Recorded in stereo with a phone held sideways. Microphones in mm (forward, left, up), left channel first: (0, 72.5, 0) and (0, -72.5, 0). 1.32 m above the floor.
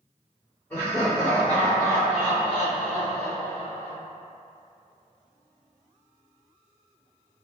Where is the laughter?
15° left (ahead or behind), 1.9 m; by 4.0 s 70° right (ahead or behind), 1.1 m.